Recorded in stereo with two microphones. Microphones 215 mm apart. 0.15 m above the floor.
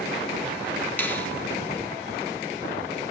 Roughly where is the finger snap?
Centre.